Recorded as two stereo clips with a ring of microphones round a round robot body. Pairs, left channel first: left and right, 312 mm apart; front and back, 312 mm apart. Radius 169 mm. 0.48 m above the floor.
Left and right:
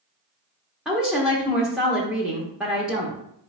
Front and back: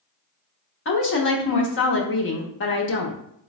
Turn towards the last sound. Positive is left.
turn(degrees=-5)